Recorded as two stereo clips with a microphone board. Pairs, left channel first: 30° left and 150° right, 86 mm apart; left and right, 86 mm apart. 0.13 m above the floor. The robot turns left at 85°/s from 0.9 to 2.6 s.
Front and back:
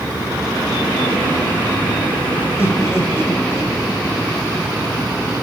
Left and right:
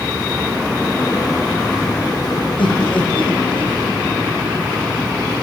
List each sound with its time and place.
2.6 s laughter: 90° left, 6 m